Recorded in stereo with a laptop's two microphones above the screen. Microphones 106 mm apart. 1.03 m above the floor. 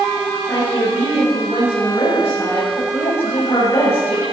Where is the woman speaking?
25° left (ahead or behind), 7.5 m.